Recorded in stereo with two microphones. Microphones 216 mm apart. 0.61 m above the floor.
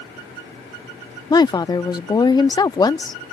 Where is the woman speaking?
20° left (ahead or behind).